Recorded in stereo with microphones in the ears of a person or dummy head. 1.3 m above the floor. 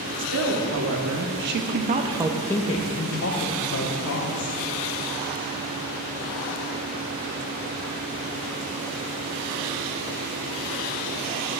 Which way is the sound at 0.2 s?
70° right (ahead or behind).